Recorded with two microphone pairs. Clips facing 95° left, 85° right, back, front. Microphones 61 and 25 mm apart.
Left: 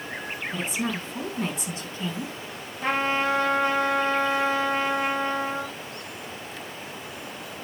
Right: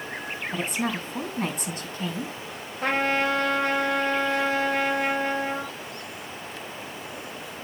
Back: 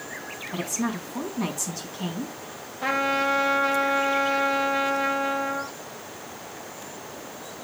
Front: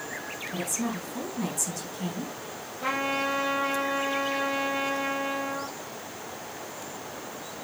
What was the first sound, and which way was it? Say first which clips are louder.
A woman speaking: right 1 dB, back 3 dB; 125° right.